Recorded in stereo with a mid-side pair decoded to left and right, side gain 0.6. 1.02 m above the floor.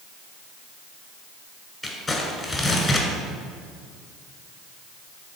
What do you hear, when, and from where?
1.8 s crumpling: 20° left, 1.8 m